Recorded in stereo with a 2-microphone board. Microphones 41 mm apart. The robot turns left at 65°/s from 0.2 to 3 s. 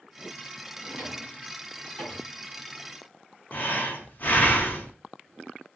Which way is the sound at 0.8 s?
40° right (ahead or behind).